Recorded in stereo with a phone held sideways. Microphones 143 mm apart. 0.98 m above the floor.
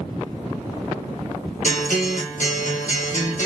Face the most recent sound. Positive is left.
turn(degrees=70)  # may be behind; listen again after turning